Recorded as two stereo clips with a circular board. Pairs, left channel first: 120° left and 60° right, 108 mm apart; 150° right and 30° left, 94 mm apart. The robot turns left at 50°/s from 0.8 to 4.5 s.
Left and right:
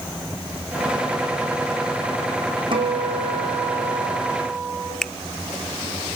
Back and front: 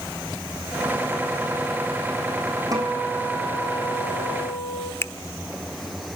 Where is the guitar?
20° right, 5 m; by 4.9 s 110° right, 5 m.